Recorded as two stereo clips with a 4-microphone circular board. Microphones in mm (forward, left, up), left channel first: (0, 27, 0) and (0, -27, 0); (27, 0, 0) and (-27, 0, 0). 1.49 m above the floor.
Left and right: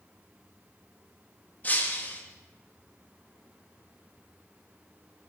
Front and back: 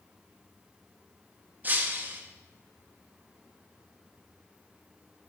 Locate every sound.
1.6 s breaking glass: 135° left, 1.1 m